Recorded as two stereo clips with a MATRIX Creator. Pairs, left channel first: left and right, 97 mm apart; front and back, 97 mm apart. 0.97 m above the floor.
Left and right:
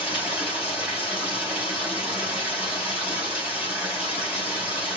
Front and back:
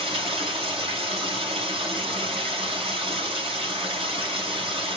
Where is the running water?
165° right, 4.5 m.